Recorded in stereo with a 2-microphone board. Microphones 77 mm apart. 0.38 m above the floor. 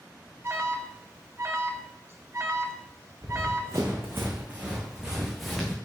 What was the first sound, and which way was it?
An alarm, 35° right (ahead or behind).